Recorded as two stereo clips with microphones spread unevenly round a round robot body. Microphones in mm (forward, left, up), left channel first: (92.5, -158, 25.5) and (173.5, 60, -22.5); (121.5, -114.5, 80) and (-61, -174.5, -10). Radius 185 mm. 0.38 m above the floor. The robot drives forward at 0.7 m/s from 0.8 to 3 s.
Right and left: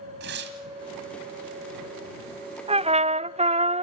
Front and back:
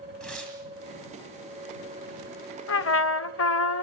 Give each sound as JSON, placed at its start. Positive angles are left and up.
{"t": 0.2, "sound": "tearing paper", "azimuth_deg": 115, "distance_m": 1.6}
{"t": 2.7, "sound": "a trumpet", "azimuth_deg": 0, "distance_m": 0.8}